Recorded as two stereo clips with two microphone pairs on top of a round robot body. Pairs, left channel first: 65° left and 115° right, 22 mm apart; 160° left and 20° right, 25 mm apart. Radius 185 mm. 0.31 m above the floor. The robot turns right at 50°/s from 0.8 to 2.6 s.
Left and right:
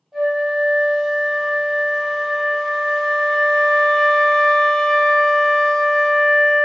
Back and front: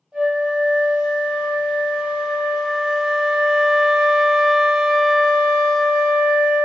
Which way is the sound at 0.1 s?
45° right.